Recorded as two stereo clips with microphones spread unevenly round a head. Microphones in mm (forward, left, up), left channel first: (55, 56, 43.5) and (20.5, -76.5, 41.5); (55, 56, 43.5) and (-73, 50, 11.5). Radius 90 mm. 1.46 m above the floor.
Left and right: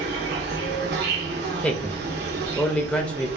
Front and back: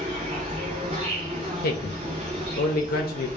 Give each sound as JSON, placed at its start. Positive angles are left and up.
{"t": 0.0, "sound": "an insect", "azimuth_deg": -115, "distance_m": 0.8}
{"t": 1.6, "sound": "a man speaking", "azimuth_deg": -5, "distance_m": 0.6}